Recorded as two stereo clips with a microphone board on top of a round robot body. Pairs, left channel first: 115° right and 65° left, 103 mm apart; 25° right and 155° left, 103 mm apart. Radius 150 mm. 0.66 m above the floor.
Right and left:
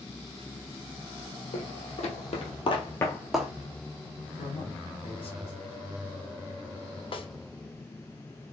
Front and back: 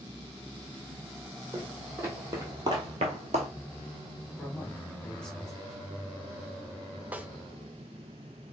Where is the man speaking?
105° right, 1.9 m.